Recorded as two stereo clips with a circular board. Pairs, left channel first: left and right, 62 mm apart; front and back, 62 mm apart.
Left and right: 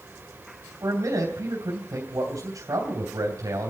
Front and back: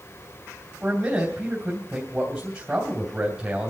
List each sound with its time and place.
0.8 s a man speaking: 110° right, 3 m